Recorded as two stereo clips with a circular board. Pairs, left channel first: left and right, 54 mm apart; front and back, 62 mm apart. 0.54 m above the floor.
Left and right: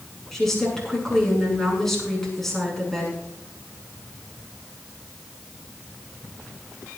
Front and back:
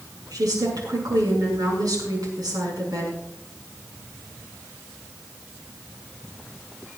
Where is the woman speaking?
175° left, 6.5 m.